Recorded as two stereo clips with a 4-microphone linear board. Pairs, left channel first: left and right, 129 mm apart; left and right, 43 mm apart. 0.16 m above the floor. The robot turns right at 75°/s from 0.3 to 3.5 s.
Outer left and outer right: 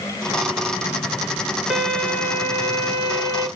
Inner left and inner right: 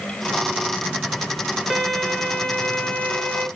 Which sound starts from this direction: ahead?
A violin, at 1.7 s.